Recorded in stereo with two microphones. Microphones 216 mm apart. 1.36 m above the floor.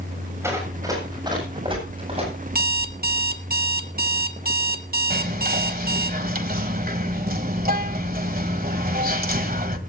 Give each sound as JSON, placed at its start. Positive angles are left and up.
{"t": 0.4, "sound": "running footsteps", "side_deg": -15, "distance_m": 7.0}
{"t": 2.5, "sound": "an alarm clock", "side_deg": -45, "distance_m": 1.2}
{"t": 5.1, "sound": "whispering", "side_deg": -45, "distance_m": 1.8}